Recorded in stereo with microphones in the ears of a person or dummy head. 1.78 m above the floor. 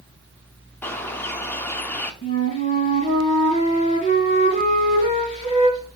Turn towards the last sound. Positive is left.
turn(degrees=30)  # may be behind; listen again after turning